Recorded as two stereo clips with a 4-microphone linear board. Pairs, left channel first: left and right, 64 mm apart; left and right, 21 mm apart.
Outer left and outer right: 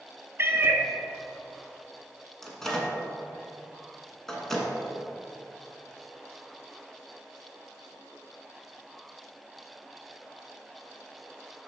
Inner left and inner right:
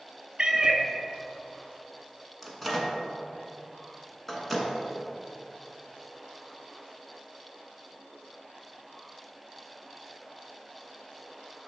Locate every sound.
0.4 s a cat meowing: 40° right (ahead or behind), 0.7 m
2.4 s a microwave: 5° left (ahead or behind), 1.2 m